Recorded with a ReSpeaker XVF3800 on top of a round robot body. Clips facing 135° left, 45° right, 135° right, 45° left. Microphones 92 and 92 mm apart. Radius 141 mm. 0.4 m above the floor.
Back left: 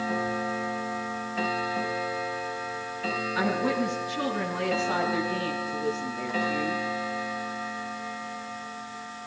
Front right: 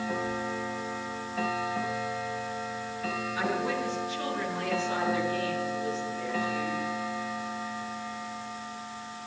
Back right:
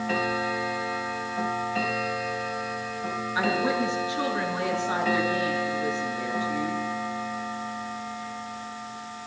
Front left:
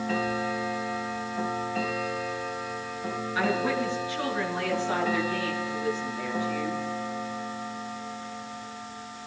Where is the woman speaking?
155° left, 10 m.